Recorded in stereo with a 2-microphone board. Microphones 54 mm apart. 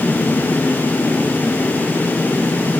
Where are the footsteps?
I don't hear footsteps.